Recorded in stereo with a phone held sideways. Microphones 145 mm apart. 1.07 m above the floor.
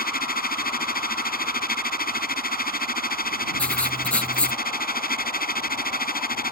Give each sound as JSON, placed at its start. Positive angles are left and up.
{"t": 0.0, "sound": "a machine running", "side_deg": 85}
{"t": 3.6, "sound": "writing", "side_deg": 5}